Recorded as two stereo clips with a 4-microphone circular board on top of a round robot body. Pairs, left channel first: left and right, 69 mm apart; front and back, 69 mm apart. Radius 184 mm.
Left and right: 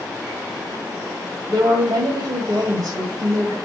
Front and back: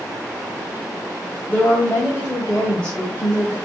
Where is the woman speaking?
70° right, 2.5 m.